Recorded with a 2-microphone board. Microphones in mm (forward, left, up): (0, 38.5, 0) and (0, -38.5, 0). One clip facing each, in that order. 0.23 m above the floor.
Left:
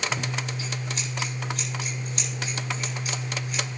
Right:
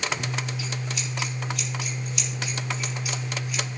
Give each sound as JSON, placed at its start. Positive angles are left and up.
{"t": 0.1, "sound": "scissors", "side_deg": 45, "distance_m": 5.0}